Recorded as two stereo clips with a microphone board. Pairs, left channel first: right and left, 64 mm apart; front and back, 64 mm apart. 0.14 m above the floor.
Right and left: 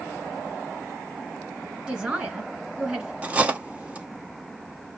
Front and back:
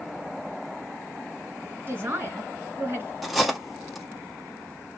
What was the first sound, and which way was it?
A man speaking, 155° left.